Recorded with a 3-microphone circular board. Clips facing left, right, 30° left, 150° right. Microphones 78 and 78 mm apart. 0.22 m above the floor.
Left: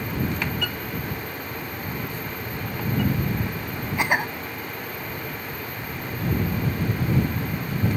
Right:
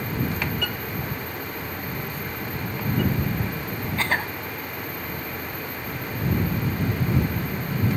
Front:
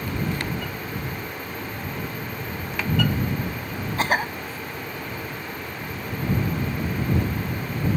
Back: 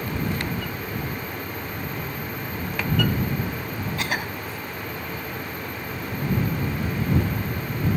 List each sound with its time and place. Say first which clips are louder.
4.0 s a cough: left 3 dB, front 7 dB; 25° left